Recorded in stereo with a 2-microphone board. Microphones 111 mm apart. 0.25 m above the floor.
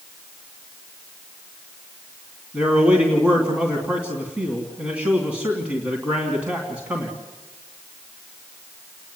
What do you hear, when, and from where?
2.5 s a man speaking: 10° right (ahead or behind), 3 m